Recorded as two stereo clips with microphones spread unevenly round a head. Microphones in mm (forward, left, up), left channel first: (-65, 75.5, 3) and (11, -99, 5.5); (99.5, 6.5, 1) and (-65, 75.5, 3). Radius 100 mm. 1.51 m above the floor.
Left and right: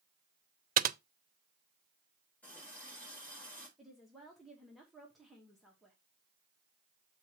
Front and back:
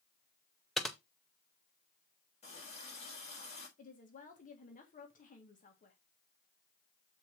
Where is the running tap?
30° left, 4.5 m.